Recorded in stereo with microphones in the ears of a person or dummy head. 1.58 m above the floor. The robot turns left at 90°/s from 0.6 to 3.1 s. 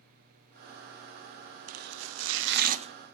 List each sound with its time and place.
1.7 s chopping: 40° right (ahead or behind), 0.6 m; by 2.9 s 30° right (ahead or behind), 0.6 m